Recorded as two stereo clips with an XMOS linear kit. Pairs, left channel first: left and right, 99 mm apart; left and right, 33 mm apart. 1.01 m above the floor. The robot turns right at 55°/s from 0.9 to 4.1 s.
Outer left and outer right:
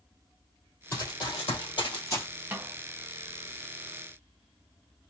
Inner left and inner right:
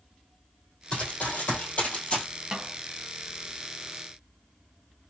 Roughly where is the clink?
No clink in this recording.